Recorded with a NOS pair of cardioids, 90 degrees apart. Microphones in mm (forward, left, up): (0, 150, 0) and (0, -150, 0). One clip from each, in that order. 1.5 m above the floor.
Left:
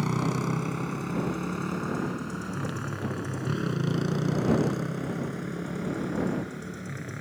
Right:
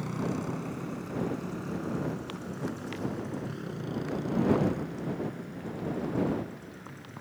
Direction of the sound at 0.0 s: 65° left.